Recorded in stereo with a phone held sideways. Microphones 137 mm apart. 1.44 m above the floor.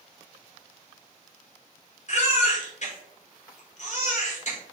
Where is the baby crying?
55° left (ahead or behind), 1.0 m.